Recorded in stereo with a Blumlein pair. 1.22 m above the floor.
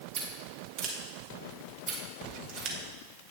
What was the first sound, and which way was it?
Scissors, 40° right.